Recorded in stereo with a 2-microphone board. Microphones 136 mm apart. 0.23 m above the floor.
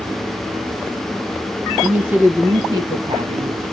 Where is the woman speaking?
5° right (ahead or behind), 1.2 m; by 3.6 s 45° right (ahead or behind), 1.5 m.